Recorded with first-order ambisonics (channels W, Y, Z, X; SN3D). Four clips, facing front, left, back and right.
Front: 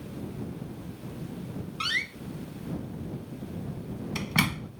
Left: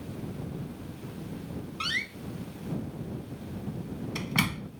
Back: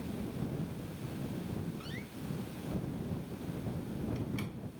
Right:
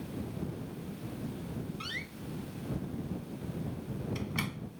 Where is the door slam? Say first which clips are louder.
Left 8 dB, front 14 dB; 30° left.